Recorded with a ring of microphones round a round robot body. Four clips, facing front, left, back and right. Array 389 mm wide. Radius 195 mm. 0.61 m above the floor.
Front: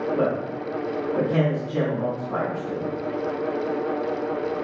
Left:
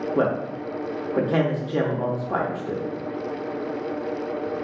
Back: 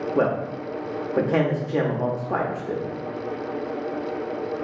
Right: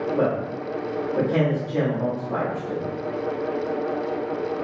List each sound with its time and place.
0.1 s a man speaking: 145° left, 0.8 m